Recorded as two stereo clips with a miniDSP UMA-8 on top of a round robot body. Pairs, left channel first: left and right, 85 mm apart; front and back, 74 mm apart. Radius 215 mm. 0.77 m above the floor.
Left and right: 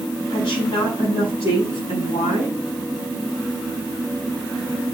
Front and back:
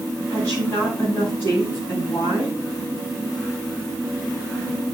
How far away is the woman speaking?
About 8 m.